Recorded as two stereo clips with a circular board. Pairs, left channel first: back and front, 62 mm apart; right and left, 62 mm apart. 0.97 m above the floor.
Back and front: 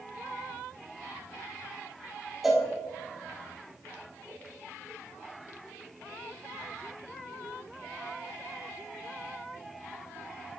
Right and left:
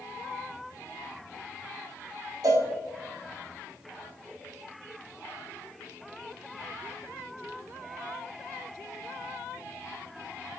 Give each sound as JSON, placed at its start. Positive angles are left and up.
{"t": 2.4, "sound": "a cowbell", "azimuth_deg": 85, "distance_m": 1.4}